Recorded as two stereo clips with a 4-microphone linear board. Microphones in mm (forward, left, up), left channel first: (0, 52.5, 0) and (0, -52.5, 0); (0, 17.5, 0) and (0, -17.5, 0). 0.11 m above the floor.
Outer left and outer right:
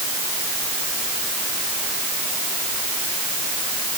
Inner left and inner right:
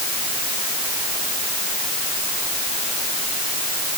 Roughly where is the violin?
No violin in this recording.